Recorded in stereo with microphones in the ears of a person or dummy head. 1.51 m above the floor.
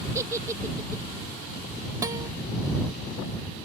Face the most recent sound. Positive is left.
turn(degrees=-20)  # may be behind; listen again after turning